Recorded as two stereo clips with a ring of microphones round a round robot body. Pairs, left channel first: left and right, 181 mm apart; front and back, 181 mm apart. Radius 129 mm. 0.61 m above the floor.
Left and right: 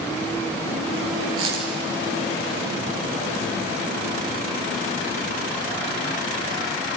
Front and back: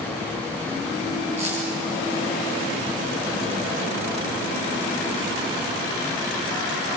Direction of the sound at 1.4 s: 115° right.